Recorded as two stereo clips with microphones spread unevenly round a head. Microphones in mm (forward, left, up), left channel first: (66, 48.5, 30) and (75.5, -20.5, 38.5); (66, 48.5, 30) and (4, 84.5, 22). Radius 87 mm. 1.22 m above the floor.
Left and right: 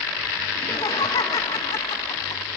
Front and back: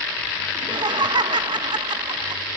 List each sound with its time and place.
0.6 s laughter: 145° left, 1.4 m